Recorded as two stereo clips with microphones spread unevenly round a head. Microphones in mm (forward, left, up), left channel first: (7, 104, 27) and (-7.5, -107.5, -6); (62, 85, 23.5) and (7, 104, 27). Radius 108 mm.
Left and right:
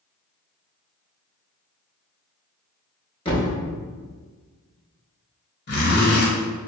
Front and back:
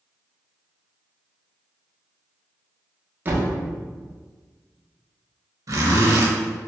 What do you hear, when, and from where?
3.2 s a thud: 130° left, 1.0 m
5.7 s a zipper: 135° left, 1.1 m